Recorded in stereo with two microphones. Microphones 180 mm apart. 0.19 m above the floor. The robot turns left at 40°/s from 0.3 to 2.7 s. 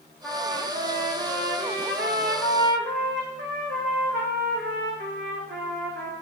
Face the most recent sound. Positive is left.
turn(degrees=-100)